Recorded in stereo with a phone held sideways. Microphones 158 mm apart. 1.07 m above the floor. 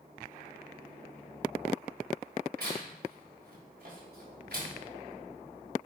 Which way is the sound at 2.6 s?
80° right.